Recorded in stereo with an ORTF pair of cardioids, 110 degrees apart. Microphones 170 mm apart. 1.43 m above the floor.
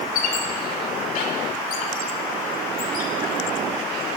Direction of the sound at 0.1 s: 70° left.